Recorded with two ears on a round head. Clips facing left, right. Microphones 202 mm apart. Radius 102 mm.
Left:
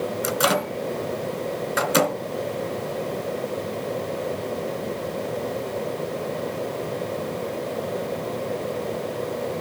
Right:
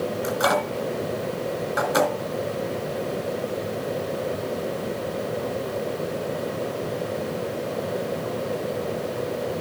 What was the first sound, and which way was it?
A microwave, 35° left (ahead or behind).